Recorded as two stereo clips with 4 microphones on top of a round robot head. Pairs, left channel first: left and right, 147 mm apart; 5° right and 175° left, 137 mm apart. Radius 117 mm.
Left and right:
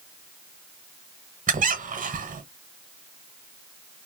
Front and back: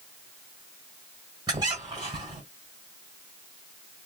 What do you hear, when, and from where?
1.5 s a squeak: 120° right, 1.1 m